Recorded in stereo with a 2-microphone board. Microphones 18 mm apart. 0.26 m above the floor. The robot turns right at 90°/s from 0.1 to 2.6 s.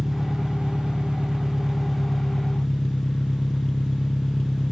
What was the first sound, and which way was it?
An engine running, 165° right.